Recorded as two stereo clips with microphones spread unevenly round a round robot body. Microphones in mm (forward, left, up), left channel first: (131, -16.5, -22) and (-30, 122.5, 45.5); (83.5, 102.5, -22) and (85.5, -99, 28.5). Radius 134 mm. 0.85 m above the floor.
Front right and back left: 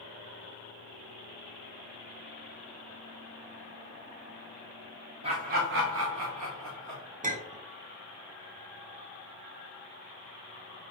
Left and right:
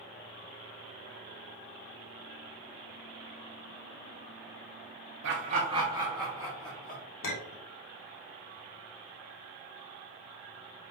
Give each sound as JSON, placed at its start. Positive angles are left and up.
{"t": 5.2, "sound": "laughter", "azimuth_deg": -145, "distance_m": 0.8}
{"t": 7.2, "sound": "a clink", "azimuth_deg": 75, "distance_m": 0.9}